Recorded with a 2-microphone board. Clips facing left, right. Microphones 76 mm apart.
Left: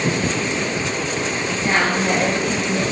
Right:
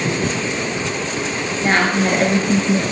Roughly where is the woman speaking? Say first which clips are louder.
Right 3 dB; right.